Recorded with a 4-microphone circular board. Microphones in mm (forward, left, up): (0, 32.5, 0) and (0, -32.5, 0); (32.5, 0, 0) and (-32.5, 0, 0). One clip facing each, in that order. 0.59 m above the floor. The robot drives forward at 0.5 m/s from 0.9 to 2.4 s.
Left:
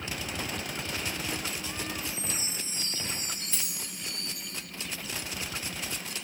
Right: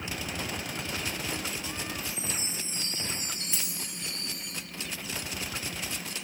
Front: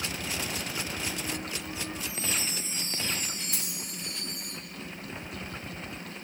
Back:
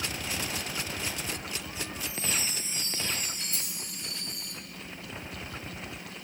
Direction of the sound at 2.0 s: 90° right.